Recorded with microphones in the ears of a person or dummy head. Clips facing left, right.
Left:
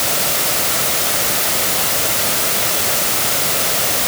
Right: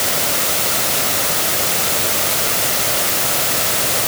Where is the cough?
No cough in this recording.